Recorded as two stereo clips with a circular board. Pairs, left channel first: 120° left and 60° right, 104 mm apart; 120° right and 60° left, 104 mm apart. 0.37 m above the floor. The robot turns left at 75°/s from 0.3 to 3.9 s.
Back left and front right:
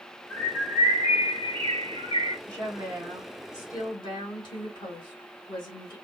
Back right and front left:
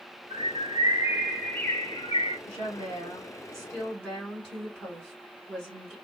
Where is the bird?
50° left, 1.0 m; by 2.4 s 105° right, 1.0 m.